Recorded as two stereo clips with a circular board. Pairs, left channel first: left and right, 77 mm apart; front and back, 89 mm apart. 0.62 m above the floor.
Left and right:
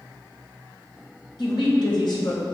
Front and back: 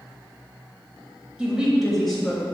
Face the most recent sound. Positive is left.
turn(degrees=80)